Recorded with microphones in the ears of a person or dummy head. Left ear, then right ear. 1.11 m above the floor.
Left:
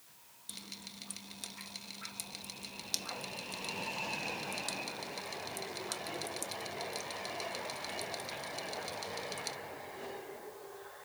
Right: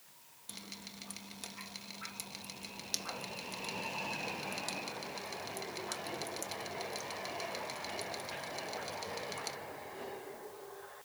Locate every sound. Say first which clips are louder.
0.5 s dripping: left 1 dB; 15° right (ahead or behind)